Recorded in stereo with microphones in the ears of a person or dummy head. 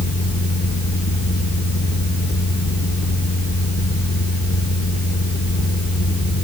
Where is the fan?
50° left (ahead or behind), 1.5 m.